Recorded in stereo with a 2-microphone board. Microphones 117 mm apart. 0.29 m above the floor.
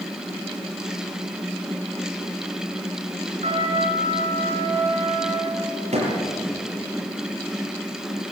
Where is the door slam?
70° right (ahead or behind), 6 m.